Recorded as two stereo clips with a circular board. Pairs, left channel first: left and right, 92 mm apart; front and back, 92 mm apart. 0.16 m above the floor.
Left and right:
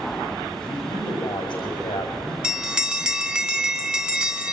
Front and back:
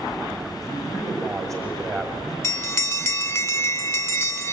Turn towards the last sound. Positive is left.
turn(degrees=-20)